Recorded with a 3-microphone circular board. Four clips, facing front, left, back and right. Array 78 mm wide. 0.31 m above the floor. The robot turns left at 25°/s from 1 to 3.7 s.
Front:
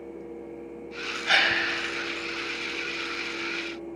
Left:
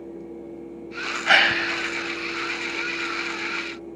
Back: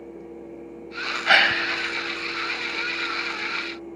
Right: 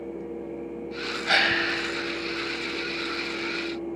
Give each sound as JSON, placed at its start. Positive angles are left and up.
{"t": 1.3, "sound": "a gasp", "azimuth_deg": 145, "distance_m": 0.9}